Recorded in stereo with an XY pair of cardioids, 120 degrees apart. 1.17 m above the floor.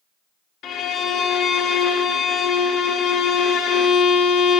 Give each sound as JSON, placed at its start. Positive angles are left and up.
{"t": 0.6, "sound": "a violin", "azimuth_deg": 65, "distance_m": 0.8}